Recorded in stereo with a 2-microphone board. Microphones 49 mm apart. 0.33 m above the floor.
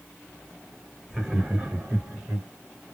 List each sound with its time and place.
1.1 s laughter: 5° right (ahead or behind), 1.1 m; by 2.5 s 55° right (ahead or behind), 1.5 m